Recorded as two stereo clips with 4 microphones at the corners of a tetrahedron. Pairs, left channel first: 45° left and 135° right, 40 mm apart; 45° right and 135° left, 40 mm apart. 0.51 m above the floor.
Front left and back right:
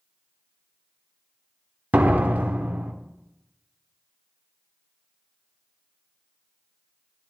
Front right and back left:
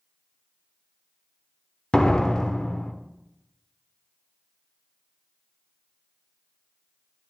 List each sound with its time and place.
1.9 s a door slam: 115° right, 1.0 m